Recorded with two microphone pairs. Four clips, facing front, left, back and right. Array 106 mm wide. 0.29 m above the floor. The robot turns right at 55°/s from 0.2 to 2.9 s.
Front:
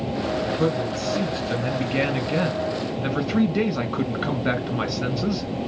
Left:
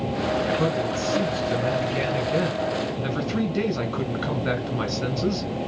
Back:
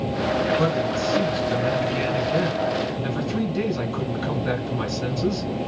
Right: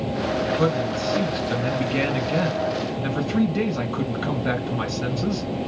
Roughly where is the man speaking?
Behind right.